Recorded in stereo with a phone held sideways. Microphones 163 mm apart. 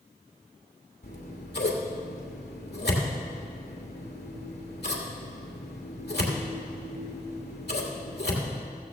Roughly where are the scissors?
Left.